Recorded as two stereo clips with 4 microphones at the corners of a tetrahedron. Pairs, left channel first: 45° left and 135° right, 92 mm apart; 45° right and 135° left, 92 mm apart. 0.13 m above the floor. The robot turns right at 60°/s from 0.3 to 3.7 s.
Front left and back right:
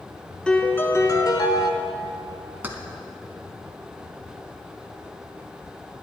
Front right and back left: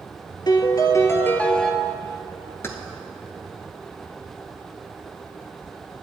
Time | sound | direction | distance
0.5 | a piano | 35° right | 0.9 m
2.6 | keys jangling | 80° right | 1.0 m